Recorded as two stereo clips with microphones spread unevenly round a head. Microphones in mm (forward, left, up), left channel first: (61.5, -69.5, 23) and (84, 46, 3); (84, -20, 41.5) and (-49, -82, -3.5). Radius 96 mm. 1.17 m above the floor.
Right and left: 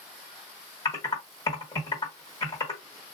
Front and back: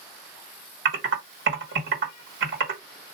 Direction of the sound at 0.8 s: 165° right.